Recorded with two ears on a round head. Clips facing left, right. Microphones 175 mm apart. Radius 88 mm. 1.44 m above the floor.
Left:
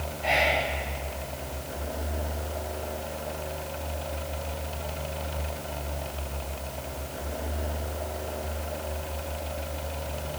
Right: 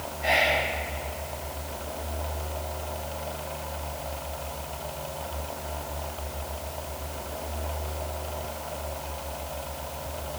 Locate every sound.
0.2 s whispering: 10° right (ahead or behind), 2.5 m